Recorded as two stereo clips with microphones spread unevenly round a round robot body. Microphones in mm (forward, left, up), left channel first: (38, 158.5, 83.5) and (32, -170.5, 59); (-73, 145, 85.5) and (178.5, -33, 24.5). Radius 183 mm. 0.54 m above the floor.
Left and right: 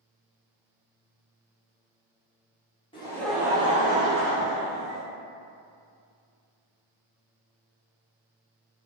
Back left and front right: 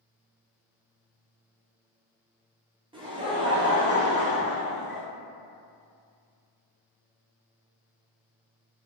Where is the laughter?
15° left, 0.9 m; by 5.0 s 110° right, 1.2 m.